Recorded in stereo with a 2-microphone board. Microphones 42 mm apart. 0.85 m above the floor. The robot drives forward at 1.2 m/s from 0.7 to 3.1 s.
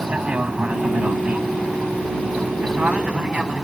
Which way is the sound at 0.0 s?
30° right (ahead or behind).